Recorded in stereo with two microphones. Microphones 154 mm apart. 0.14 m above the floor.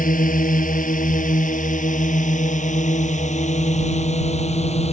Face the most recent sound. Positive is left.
turn(degrees=45)  # may be behind; listen again after turning